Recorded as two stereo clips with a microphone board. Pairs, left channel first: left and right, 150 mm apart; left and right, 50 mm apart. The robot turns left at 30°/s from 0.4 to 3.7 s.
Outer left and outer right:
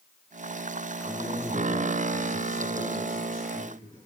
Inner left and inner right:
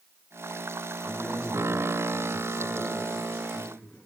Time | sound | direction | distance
1.0 | a man speaking | 145° left | 4 m